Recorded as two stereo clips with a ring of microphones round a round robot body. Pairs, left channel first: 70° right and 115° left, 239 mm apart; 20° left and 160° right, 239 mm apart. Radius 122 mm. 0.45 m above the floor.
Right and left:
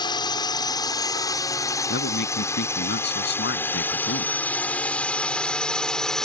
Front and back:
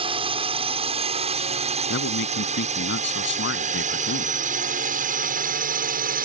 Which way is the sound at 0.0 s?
120° right.